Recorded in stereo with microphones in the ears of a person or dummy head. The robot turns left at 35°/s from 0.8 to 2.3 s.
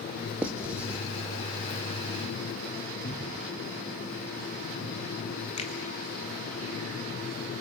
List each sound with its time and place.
0.4 s writing: 5° right (ahead or behind), 0.7 m
3.0 s a cupboard door: 50° left (ahead or behind), 3 m
5.6 s a finger snap: 35° left (ahead or behind), 1.8 m